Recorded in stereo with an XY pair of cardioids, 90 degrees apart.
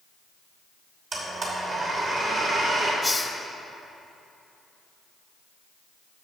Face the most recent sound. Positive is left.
turn(degrees=15)